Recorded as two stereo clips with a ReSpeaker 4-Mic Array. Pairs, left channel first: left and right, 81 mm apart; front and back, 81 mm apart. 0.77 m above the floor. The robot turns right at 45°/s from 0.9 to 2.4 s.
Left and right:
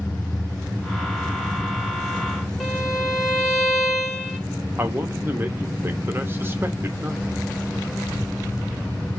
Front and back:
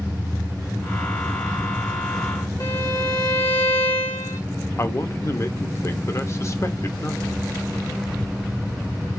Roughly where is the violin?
Ahead.